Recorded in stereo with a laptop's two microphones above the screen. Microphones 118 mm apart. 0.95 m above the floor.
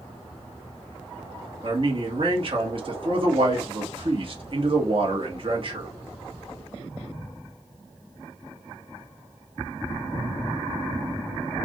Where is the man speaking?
50° right (ahead or behind), 1.3 m.